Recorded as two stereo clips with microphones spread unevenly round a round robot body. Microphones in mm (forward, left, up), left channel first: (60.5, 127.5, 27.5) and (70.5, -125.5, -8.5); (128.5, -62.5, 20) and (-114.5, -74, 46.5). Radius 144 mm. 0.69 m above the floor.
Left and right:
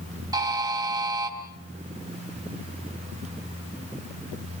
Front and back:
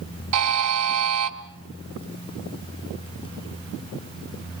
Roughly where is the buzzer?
Behind.